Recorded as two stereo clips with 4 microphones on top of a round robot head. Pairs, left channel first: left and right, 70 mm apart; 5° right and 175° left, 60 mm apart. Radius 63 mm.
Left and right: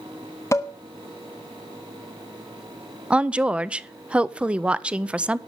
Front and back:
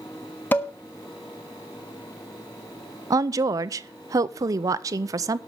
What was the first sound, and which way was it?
Dishes clattering, 35° left.